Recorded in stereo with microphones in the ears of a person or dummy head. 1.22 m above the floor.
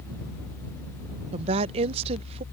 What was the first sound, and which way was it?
A woman speaking, 35° right (ahead or behind).